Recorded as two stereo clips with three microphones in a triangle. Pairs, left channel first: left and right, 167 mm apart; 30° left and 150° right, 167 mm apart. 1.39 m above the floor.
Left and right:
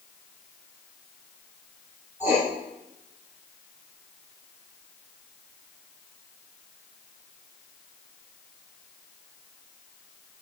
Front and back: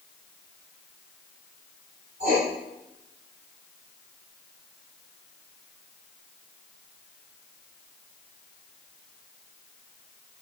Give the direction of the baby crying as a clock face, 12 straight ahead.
No baby crying in this recording.